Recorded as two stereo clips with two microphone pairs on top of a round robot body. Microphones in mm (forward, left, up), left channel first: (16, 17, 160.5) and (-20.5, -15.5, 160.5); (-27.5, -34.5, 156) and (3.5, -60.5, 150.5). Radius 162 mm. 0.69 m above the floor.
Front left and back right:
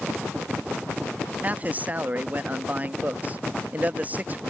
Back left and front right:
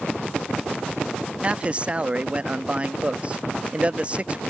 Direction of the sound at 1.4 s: 90° right.